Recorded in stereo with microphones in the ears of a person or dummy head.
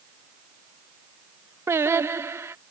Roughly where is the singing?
Centre.